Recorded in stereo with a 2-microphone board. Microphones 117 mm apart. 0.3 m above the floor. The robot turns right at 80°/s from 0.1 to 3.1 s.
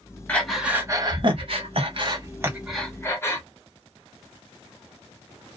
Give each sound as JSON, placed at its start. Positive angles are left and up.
{"t": 0.3, "sound": "breathing", "side_deg": 15, "distance_m": 0.9}